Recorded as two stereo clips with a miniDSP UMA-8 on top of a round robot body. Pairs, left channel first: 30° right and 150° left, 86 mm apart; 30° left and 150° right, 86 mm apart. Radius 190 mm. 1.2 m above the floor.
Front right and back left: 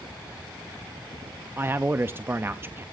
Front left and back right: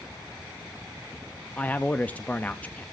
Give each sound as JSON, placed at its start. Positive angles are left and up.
{"t": 1.6, "sound": "a man speaking", "azimuth_deg": 95, "distance_m": 0.6}